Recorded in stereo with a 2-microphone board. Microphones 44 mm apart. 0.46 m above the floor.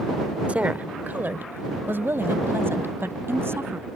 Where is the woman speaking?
30° right (ahead or behind); by 3.9 s 70° right (ahead or behind).